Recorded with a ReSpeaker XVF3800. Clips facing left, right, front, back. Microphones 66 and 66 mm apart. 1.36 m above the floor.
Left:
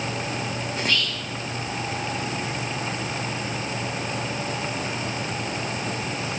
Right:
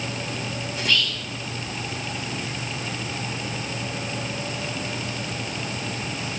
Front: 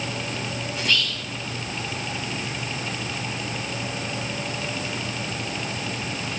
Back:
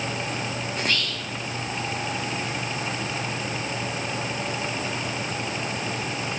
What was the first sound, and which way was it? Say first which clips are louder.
Whispering: right 2 dB, front 3 dB; 135° left.